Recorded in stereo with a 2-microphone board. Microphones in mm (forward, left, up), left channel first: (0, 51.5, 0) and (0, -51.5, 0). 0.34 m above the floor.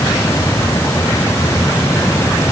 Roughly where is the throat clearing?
No throat clearing in this recording.